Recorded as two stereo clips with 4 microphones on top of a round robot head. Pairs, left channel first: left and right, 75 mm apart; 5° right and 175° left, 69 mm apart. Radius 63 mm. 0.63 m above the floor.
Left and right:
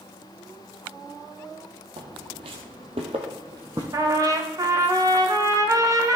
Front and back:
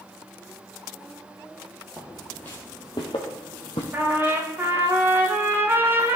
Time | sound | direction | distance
2.0 | footsteps | 100° right | 1.5 m
3.9 | a trumpet | 125° right | 1.1 m